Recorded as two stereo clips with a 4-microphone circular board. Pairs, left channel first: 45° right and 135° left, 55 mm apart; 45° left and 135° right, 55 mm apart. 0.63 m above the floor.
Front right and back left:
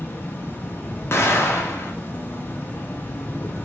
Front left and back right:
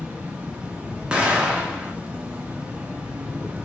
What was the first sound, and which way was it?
An insect, 75° right.